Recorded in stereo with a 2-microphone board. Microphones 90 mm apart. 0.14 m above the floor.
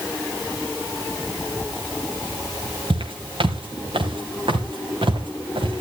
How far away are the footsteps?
About 2.5 m.